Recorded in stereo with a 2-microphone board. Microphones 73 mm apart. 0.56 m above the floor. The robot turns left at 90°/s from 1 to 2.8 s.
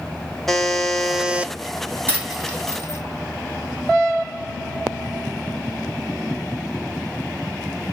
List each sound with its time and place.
0.5 s a buzzer: 5° left, 0.6 m; by 1.5 s 40° right, 0.6 m
2.1 s a dropped coin: 30° right (ahead or behind), 2 m; by 3.0 s 35° left (ahead or behind), 2 m